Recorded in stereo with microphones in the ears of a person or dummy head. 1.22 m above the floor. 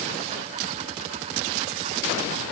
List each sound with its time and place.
Only background noise.